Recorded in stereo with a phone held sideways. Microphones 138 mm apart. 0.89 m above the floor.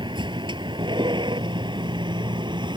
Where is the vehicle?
35° right (ahead or behind).